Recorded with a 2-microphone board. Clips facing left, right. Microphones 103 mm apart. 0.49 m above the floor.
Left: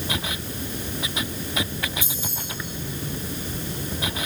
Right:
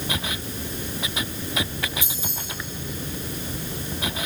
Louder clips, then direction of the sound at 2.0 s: Left 1 dB; 70° right (ahead or behind).